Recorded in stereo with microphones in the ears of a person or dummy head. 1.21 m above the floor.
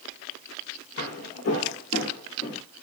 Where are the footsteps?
70° left (ahead or behind), 3.5 m; by 2.6 s 50° left (ahead or behind), 3.5 m.